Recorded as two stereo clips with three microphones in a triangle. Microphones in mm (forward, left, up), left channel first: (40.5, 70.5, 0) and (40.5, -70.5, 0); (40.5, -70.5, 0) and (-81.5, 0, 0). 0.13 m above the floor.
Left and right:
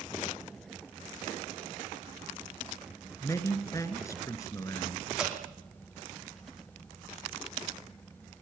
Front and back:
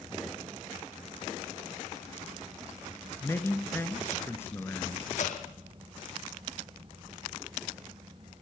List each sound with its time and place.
3.2 s a man speaking: 35° left, 2 m
5.2 s dripping: 5° right, 3.5 m